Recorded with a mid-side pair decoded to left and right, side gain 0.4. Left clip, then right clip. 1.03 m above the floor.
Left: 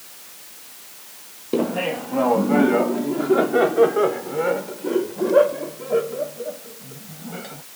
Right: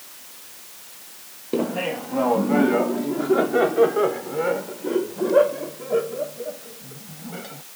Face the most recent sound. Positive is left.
turn(degrees=5)